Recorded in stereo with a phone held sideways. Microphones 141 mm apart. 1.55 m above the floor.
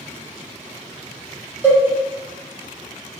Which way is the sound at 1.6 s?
15° right (ahead or behind).